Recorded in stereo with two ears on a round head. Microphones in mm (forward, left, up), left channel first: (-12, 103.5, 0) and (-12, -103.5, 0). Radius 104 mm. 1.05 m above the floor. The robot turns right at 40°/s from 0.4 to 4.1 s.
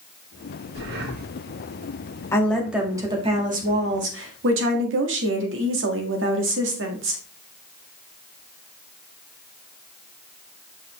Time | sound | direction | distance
0.8 | breathing | 55° right (ahead or behind) | 0.9 m
2.3 | a woman speaking | 170° left | 1.7 m